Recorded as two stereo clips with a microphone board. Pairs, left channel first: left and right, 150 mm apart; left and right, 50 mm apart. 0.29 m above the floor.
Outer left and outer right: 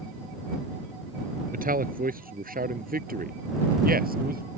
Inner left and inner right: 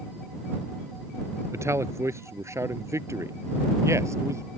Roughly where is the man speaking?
Right.